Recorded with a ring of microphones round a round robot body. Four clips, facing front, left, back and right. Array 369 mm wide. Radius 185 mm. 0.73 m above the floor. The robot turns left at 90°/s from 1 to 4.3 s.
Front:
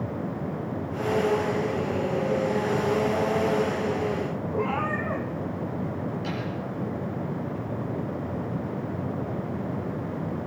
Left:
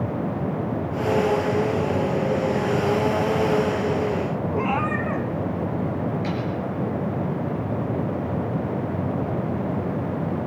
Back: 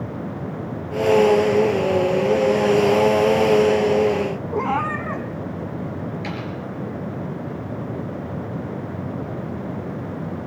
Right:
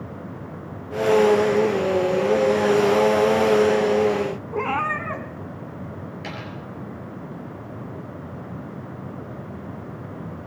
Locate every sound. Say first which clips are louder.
4.5 s a cat meowing: even, back 4 dB; 165° right, 1.3 m
6.2 s a dropped coin: left 8 dB, back 2 dB; 145° right, 5.5 m